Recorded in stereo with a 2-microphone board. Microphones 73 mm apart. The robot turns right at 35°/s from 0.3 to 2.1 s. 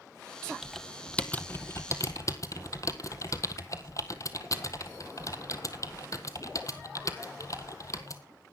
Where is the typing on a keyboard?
5° right (ahead or behind), 1.4 m; by 8.2 s 50° left (ahead or behind), 1.4 m.